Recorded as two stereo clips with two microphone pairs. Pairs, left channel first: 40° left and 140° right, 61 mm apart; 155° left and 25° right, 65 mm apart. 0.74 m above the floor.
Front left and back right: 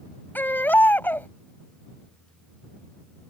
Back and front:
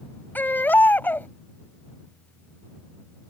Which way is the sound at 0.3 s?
95° left.